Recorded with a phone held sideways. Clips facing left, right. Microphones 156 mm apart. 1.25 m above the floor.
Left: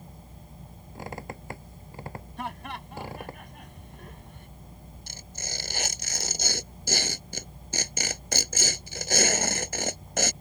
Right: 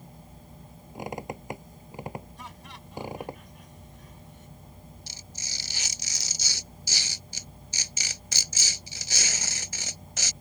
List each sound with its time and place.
0.9 s a squeak: 15° right (ahead or behind)
2.4 s laughter: 65° left (ahead or behind)
5.1 s tearing paper: 55° left (ahead or behind)